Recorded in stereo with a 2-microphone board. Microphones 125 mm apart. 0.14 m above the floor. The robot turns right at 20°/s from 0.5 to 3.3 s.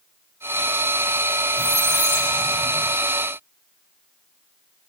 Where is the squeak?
30° left (ahead or behind), 1.1 m; by 3.0 s 40° left (ahead or behind), 1.1 m.